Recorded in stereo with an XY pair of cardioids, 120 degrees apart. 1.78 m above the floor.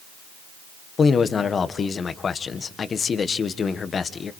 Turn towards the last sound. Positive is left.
turn(degrees=35)